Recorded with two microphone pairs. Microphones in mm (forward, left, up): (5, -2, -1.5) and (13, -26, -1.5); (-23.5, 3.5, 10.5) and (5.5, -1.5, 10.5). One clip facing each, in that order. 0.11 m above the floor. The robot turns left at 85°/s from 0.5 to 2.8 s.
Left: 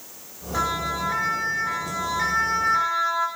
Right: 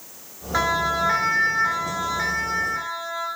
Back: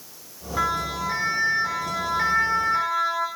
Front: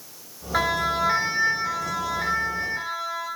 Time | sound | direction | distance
0.5 | a siren | 15° right | 8 m